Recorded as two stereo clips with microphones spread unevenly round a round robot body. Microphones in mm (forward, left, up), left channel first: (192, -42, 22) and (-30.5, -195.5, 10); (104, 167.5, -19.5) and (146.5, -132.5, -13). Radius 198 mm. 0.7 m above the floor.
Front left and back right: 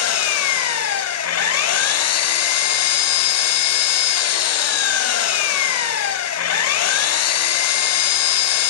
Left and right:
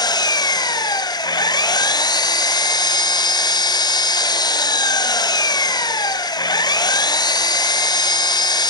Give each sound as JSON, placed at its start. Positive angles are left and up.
{"t": 0.0, "sound": "an engine running", "azimuth_deg": 20, "distance_m": 0.8}